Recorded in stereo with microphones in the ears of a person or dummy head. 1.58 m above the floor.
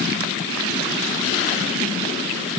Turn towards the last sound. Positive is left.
No sound to turn to.